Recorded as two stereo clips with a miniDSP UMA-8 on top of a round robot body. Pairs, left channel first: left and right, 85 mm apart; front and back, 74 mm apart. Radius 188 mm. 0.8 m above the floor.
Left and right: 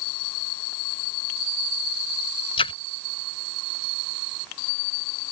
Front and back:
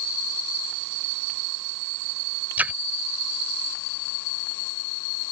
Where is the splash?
105° left.